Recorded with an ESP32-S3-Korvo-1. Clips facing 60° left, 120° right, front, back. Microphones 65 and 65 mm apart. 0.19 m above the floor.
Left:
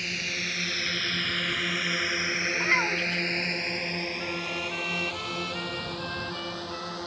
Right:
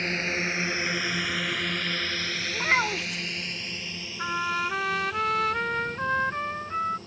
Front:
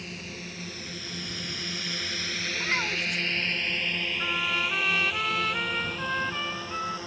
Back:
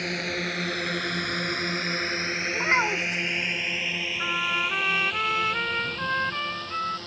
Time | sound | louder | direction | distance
0.0 | a drone | right 5 dB, back 10 dB | 170° right | ?
2.5 | a child speaking | right 2 dB, back 6 dB | 175° left | ?
4.2 | a trumpet | right 5 dB, back 3 dB | 110° right | ?